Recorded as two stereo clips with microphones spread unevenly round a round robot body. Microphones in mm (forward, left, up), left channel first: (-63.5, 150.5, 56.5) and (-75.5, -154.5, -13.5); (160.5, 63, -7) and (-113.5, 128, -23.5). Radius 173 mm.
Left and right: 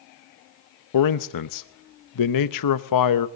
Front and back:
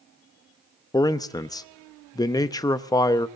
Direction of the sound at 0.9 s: 65° left.